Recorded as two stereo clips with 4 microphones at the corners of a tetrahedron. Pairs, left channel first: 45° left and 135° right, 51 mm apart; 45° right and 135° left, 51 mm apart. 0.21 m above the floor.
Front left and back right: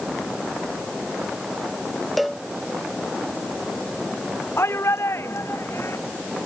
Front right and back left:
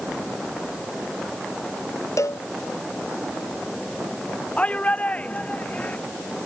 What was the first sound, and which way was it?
A cowbell, 45° right.